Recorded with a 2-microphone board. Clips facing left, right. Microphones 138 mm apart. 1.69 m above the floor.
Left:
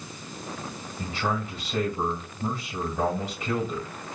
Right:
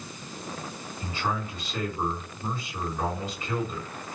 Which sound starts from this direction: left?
A man speaking, at 1.0 s.